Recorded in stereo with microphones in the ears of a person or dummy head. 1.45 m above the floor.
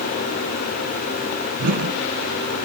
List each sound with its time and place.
1.6 s a whoosh: 70° right (ahead or behind), 5 m